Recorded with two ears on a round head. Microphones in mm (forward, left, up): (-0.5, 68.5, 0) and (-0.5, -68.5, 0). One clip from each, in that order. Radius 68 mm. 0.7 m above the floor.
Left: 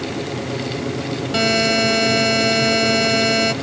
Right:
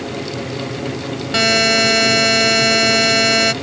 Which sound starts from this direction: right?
A buzzer, at 1.3 s.